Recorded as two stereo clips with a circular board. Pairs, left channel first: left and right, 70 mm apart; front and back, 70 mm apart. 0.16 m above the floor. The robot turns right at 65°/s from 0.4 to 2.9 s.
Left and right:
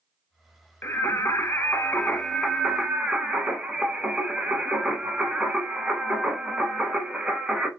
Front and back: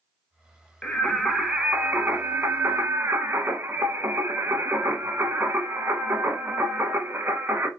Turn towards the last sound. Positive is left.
turn(degrees=-160)